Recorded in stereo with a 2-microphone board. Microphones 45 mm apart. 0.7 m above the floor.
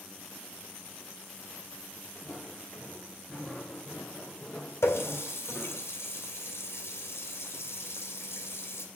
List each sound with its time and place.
2.1 s footsteps: 30° left (ahead or behind), 4.5 m; by 5.8 s 5° right (ahead or behind), 3.5 m
4.8 s a running tap: 70° left (ahead or behind), 2.5 m